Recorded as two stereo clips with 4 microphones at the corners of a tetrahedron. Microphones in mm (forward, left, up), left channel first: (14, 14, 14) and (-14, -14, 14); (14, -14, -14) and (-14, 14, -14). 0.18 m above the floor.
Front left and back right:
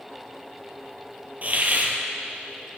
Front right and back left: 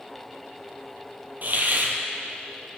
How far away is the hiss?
About 1.2 m.